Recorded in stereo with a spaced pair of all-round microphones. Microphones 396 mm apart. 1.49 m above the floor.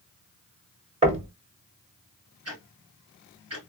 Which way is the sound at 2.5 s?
35° right (ahead or behind).